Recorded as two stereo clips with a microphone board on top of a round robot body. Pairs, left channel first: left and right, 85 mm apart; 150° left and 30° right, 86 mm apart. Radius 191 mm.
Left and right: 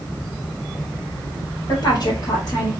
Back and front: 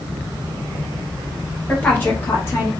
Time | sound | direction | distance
1.7 | a woman speaking | 80° left | 1.9 m